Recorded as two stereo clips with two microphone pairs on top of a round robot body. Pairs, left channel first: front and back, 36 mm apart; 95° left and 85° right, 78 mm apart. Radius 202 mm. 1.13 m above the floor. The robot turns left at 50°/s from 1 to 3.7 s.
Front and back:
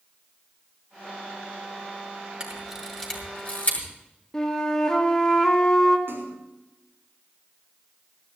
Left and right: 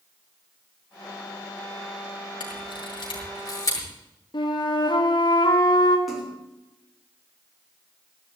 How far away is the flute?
About 2.0 m.